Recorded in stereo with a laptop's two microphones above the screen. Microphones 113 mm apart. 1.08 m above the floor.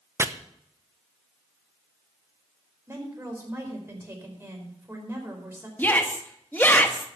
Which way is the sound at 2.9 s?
25° right (ahead or behind).